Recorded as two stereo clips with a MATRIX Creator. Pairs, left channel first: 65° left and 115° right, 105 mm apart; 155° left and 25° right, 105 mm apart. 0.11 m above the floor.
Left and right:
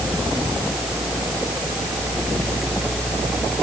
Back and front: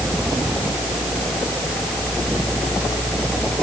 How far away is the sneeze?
I don't hear a sneeze.